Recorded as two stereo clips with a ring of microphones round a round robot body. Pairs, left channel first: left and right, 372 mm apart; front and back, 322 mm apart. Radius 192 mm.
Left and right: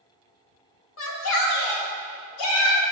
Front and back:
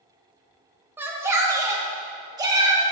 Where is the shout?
100° left, 1.3 m; by 2.8 s 105° left, 2.5 m.